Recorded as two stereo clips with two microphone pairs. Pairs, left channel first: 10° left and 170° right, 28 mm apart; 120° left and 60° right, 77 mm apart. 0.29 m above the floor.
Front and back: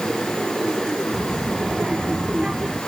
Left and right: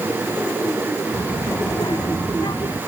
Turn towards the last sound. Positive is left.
turn(degrees=130)